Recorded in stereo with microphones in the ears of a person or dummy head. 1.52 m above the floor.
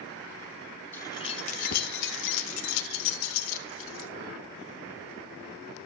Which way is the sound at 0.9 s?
10° left (ahead or behind).